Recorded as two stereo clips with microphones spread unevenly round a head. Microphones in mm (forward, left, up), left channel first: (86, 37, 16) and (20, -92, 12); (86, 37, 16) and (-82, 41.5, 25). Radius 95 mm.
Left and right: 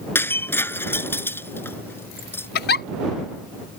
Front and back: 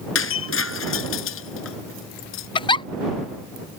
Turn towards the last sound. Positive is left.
turn(degrees=60)